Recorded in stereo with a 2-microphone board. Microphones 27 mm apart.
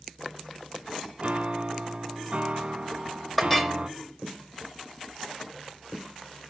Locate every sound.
1.2 s a piano: 50° right (ahead or behind), 0.6 m
3.4 s a clink: 5° left (ahead or behind), 1.1 m